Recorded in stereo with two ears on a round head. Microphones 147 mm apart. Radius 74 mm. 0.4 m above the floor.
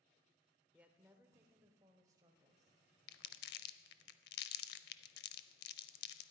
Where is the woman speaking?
10° right (ahead or behind), 0.8 m; by 2.7 s 25° right (ahead or behind), 1.7 m.